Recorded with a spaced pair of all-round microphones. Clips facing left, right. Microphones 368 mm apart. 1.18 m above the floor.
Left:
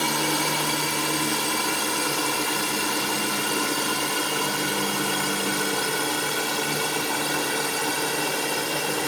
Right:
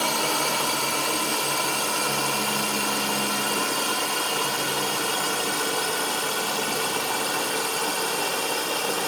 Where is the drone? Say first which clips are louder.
Left 2 dB; 30° left (ahead or behind); by 9.1 s 35° left (ahead or behind).